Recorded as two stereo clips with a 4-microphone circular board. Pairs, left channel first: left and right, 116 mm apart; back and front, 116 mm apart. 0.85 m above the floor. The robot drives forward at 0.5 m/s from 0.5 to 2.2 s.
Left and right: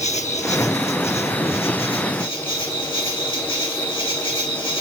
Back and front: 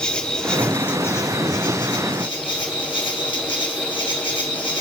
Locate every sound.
0.0 s an insect: 100° left, 1.0 m; by 4.8 s 135° left, 1.4 m